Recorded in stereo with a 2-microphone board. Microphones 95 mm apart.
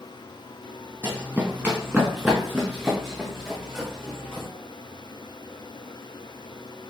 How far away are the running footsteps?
About 0.9 m.